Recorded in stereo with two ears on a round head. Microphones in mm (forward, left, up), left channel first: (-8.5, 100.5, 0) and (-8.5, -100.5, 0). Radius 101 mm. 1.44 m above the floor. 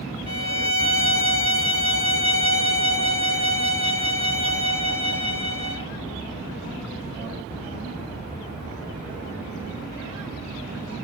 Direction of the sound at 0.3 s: 25° left (ahead or behind).